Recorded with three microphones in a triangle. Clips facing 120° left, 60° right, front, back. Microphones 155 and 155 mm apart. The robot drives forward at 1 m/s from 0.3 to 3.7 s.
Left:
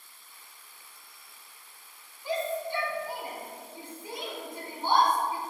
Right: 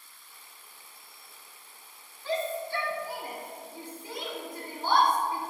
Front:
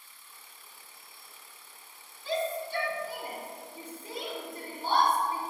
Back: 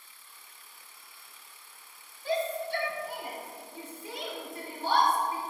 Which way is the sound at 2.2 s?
165° right.